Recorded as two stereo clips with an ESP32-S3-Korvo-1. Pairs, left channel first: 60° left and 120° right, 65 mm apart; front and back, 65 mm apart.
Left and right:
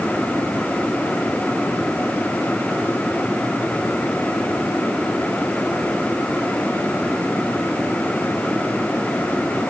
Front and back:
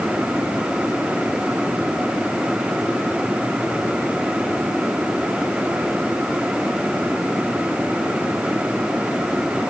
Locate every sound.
Only background noise.